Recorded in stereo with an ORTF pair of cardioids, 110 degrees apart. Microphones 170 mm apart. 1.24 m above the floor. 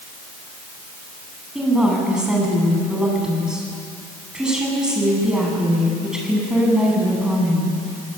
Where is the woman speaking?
5° right, 10 m.